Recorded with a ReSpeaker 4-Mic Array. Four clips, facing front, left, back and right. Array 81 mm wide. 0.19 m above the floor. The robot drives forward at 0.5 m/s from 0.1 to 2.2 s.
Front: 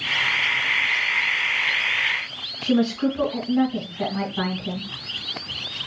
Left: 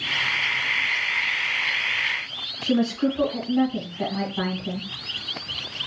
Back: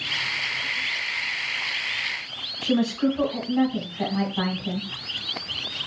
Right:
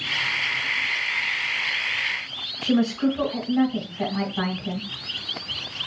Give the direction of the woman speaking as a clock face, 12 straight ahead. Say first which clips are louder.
Right 1 dB, front 2 dB; 5 o'clock.